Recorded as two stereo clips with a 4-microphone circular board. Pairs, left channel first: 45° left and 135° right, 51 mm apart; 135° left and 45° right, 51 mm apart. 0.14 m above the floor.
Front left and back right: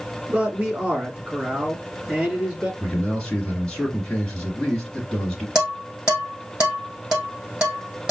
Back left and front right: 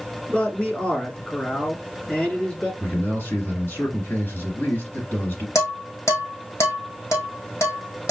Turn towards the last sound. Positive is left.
turn(degrees=150)